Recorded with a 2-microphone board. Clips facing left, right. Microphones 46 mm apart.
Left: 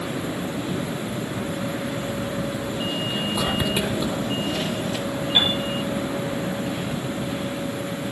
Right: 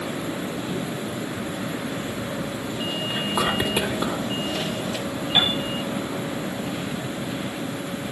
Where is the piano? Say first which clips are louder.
Even; 25° right (ahead or behind), 9.5 m.